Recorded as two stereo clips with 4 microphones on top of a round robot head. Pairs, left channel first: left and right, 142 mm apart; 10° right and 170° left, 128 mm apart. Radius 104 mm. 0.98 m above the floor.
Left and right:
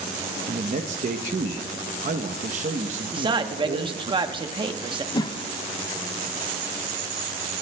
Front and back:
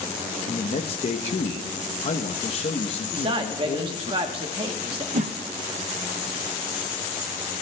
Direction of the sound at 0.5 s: 50° right.